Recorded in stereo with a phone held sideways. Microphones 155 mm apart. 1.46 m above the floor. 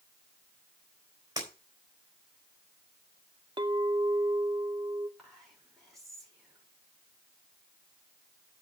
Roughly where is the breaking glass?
Right.